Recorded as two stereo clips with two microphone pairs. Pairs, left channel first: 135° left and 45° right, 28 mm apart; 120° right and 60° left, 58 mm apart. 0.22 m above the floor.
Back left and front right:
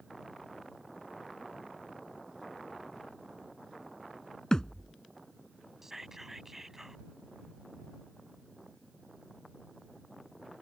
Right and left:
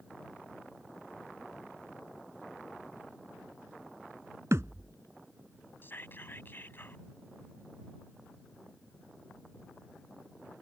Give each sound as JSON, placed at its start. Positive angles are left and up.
{"t": 4.5, "sound": "a thud", "azimuth_deg": 80}
{"t": 5.8, "sound": "whispering", "azimuth_deg": -115}